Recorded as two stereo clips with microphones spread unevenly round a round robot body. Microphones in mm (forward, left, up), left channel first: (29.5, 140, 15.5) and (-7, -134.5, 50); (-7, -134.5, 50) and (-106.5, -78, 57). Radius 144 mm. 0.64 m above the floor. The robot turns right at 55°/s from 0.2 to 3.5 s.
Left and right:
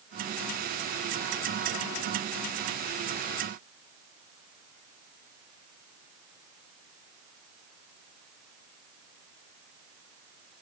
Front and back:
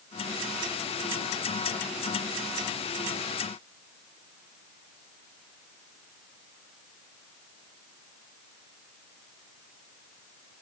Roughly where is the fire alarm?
I don't hear a fire alarm.